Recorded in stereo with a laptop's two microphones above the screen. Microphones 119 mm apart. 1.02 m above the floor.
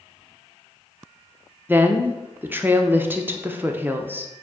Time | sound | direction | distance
1.7 | a woman speaking | 15° right (ahead or behind) | 0.6 m